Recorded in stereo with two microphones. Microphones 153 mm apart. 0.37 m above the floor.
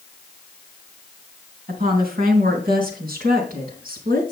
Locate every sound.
1.7 s a woman speaking: 70° right (ahead or behind), 3 m